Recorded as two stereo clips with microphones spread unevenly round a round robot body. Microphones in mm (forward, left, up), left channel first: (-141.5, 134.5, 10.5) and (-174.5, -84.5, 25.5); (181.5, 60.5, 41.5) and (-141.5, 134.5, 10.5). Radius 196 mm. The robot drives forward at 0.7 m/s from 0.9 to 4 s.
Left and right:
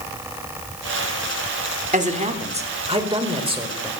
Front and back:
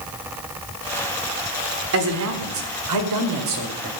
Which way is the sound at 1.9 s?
155° right.